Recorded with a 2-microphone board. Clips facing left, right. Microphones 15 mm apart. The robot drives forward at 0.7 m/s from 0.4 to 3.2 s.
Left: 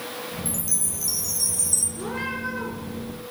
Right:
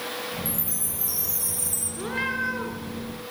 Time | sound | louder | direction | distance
0.5 | a chime | left 3 dB | 55° left (ahead or behind) | 3 m
2.0 | a cat meowing | right 2 dB | 20° right (ahead or behind) | 3.5 m